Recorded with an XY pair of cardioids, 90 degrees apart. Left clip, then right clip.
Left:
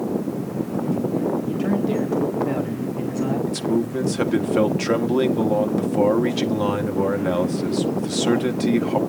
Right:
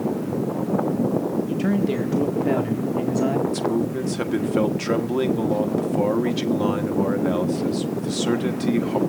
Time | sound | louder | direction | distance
1.5 | a man speaking | left 1 dB | 35° right | 2.0 m
3.5 | a man speaking | even | 20° left | 1.4 m